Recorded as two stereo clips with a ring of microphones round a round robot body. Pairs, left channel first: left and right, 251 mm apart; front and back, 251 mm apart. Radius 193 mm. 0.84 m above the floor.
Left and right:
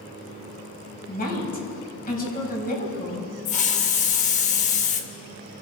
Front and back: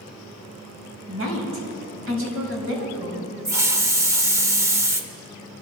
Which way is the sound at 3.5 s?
110° left.